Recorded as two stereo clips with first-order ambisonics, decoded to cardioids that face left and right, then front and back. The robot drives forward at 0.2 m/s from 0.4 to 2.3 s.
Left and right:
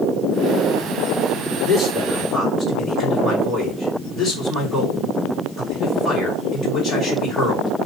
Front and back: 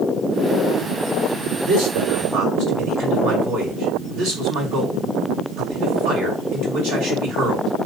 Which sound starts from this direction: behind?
A man speaking, at 1.6 s.